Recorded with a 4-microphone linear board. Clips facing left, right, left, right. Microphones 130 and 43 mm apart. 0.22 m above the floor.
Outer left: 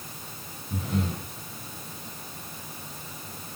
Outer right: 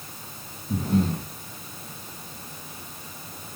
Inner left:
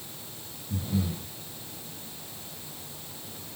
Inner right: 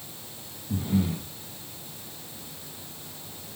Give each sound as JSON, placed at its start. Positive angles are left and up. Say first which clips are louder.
{"t": 0.7, "sound": "breathing", "louder": "outer right 6 dB, inner right 4 dB", "side_deg": -40, "distance_m": 1.3}